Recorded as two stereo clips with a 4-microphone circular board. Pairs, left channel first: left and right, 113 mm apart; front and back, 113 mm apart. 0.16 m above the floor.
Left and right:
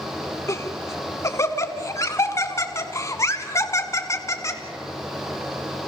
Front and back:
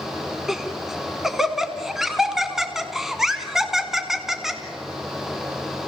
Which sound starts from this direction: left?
Laughter, at 0.5 s.